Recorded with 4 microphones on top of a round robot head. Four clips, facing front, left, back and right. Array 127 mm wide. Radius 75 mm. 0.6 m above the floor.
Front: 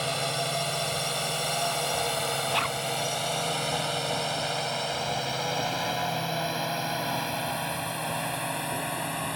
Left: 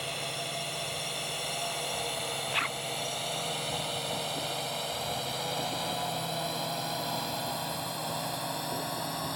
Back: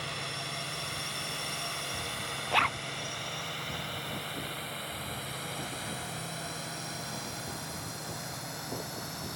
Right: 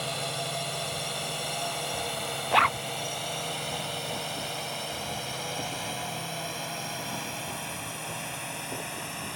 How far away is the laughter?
I don't hear laughter.